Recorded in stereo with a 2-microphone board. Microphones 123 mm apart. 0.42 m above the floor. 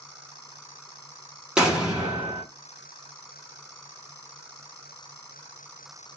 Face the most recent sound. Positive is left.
turn(degrees=-5)  # may be behind; listen again after turning